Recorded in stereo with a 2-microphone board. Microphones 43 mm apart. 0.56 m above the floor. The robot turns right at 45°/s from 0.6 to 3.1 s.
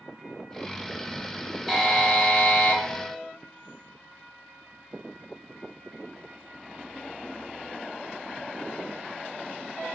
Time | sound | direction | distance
1.7 | a buzzer | straight ahead | 0.6 m